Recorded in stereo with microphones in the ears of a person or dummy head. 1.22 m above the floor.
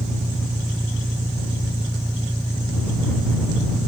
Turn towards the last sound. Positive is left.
turn(degrees=-10)  # may be behind; listen again after turning